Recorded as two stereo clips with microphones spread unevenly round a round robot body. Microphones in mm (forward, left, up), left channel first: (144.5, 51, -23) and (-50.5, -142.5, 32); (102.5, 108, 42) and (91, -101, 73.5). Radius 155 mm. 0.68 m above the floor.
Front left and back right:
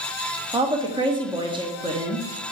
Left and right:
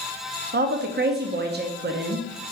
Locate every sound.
0.5 s a woman speaking: 55° right, 0.9 m